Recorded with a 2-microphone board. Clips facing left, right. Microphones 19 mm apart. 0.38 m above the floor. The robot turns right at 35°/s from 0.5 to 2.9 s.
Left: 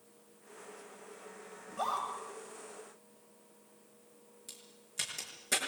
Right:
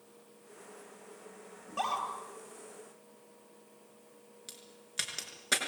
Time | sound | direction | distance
1.7 | a scream | 70° right (ahead or behind) | 8 m
4.5 | a crack | 35° right (ahead or behind) | 5.5 m